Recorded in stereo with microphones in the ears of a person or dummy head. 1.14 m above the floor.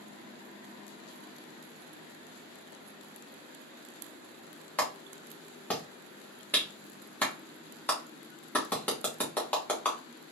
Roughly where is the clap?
Centre.